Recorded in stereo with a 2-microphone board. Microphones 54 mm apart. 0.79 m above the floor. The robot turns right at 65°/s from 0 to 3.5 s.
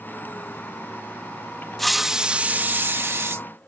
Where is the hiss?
170° left; by 3.5 s 80° right.